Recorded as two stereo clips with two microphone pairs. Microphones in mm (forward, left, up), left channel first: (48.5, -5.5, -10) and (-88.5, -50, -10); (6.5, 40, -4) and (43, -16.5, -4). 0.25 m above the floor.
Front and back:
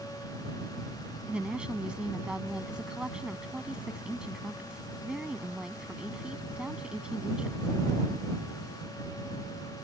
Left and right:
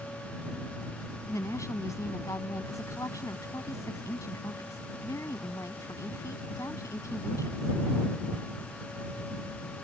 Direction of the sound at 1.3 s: 115° left.